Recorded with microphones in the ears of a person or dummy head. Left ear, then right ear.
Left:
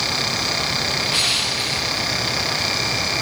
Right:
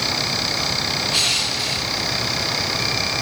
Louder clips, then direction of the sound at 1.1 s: Right 1 dB; 10° left (ahead or behind).